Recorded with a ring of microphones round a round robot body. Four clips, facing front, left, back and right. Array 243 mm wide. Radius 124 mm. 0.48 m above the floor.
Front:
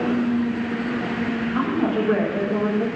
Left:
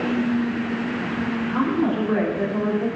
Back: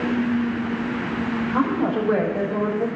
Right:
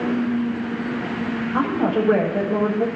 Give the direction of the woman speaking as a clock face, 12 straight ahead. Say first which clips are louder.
Right 1 dB, back 1 dB; 3 o'clock.